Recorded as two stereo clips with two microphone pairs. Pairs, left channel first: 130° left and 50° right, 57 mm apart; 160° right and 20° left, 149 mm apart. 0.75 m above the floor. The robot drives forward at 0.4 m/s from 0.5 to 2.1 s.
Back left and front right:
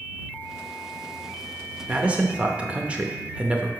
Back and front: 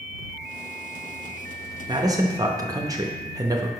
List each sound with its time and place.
1.9 s a man speaking: 5° right, 0.8 m